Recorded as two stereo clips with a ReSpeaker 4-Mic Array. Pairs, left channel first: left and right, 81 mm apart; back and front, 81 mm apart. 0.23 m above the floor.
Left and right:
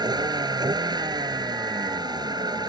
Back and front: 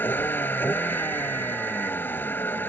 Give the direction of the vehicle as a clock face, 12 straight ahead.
4 o'clock.